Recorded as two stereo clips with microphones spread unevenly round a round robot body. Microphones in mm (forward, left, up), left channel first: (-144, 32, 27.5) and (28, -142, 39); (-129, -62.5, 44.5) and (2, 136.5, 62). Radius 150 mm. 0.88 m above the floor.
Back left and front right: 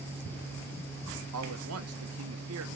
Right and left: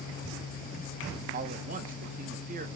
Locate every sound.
1.3 s a man speaking: 5° right, 1.0 m